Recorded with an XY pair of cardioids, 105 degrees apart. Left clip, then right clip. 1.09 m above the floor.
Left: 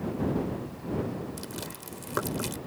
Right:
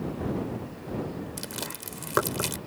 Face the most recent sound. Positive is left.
turn(degrees=-40)